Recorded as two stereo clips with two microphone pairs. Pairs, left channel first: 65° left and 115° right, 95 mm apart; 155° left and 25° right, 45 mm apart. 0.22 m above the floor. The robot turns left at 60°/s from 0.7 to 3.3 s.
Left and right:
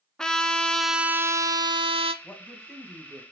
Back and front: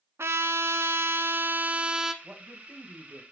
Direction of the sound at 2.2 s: 5° right.